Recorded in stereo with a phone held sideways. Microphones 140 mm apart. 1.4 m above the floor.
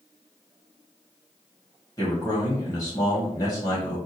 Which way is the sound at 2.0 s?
25° left (ahead or behind).